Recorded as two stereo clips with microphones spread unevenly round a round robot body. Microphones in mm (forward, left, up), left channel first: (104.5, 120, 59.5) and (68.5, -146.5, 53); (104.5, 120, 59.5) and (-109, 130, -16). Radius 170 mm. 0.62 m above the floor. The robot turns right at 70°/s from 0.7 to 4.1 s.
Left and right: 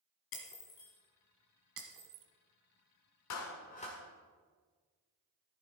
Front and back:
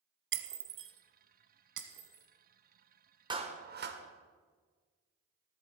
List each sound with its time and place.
0.3 s breaking glass: 135° left, 1.0 m; by 2.2 s 115° right, 1.0 m
3.3 s a clap: 115° left, 1.4 m; by 4.0 s 165° left, 1.4 m